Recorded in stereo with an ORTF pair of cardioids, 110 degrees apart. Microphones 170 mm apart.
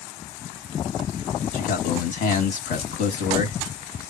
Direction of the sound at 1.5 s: 55° left.